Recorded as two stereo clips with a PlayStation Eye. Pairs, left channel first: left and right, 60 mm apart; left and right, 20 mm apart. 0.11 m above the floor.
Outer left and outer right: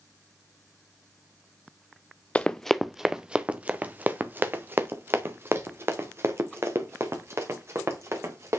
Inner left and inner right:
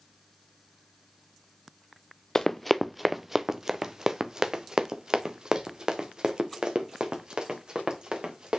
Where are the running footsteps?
20° left (ahead or behind), 0.6 m; by 8.6 s 50° right (ahead or behind), 3.5 m.